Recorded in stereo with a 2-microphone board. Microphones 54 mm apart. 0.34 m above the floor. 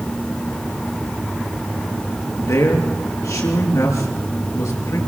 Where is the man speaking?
80° left, 6 m.